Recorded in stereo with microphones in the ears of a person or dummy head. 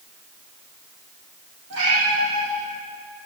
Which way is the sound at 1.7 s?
75° right (ahead or behind).